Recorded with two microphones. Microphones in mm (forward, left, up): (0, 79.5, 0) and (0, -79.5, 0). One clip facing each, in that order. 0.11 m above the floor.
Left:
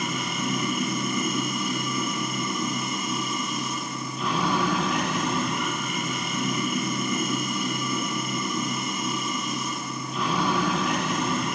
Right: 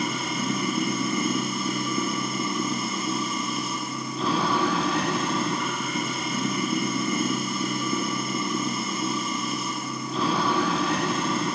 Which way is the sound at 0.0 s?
30° right (ahead or behind).